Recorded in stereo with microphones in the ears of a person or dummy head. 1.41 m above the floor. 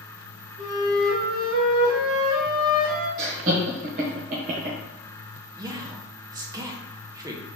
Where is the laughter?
40° right (ahead or behind), 1.1 m.